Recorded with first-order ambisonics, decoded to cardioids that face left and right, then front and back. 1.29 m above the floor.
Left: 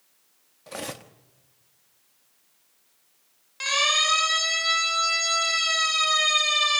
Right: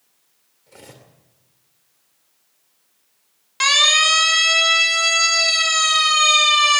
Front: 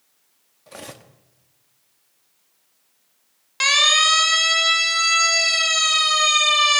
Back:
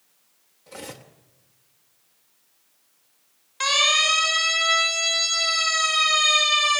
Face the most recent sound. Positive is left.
turn(degrees=-40)